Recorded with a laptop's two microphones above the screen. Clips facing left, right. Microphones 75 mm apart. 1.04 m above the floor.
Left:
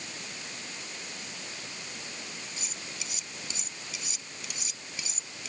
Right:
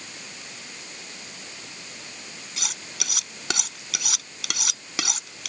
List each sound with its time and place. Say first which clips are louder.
2.6 s cutlery clinking: right 4 dB; 80° right